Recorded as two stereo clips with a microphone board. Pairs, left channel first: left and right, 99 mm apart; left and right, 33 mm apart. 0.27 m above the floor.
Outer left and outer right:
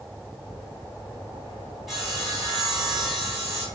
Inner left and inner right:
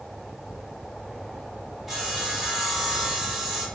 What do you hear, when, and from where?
1.9 s sawing: centre (ahead or behind), 1.0 m